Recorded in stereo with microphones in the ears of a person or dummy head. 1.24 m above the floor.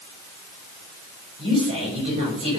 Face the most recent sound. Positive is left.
turn(degrees=-30)  # may be behind; listen again after turning